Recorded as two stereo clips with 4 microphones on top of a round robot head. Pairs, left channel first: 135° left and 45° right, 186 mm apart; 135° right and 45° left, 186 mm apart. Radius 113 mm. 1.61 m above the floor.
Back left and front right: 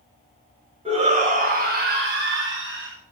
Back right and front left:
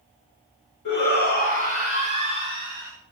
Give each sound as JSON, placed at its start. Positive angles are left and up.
{"t": 0.8, "sound": "a shout", "azimuth_deg": -110, "distance_m": 3.0}